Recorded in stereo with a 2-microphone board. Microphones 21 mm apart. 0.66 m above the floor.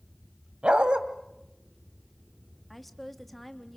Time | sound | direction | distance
0.6 | a dog barking | 70° right (ahead or behind) | 1.6 m
2.7 | a woman speaking | 5° left (ahead or behind) | 1.3 m